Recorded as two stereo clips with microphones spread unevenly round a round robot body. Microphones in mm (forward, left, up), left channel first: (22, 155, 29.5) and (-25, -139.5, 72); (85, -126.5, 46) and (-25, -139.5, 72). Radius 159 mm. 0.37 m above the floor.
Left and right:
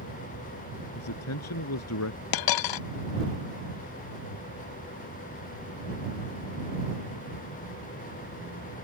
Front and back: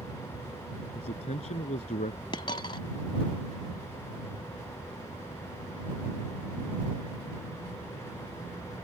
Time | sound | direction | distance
0.9 | a man speaking | 40° left | ?
2.3 | a dropped coin | 70° left | ?